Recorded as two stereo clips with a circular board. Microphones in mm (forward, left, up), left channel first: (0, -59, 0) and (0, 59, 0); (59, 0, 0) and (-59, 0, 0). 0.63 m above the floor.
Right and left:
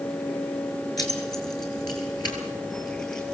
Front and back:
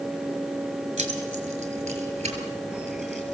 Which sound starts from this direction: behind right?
Keys jangling, at 1.0 s.